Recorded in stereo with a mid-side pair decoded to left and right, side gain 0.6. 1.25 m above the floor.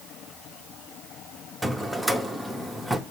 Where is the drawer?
Straight ahead, 1.1 m.